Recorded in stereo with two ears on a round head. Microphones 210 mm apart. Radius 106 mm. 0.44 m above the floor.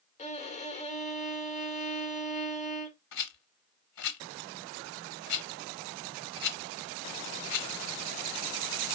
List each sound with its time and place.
0.2 s a violin: 30° left (ahead or behind), 1.3 m
3.1 s a rattle: 75° left (ahead or behind), 1.7 m